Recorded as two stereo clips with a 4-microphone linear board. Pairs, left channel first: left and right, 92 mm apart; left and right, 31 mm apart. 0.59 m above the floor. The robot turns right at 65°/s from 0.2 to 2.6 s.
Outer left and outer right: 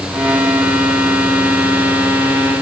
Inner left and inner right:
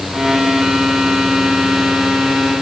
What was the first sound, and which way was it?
Only background noise.